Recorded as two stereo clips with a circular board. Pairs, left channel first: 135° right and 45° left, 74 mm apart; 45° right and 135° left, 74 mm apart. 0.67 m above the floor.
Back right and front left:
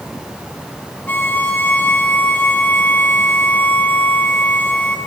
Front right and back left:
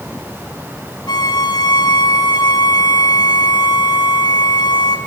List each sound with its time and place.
1.1 s a violin: 70° right, 4 m